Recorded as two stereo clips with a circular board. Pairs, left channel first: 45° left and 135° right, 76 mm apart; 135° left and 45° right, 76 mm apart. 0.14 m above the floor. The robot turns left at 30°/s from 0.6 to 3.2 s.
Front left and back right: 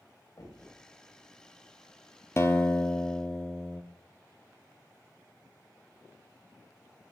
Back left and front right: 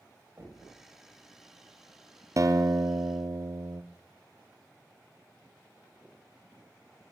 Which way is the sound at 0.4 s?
10° left.